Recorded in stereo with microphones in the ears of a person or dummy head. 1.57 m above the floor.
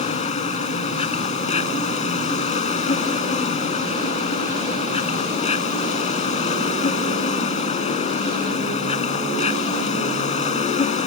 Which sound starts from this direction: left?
An insect, at 0.0 s.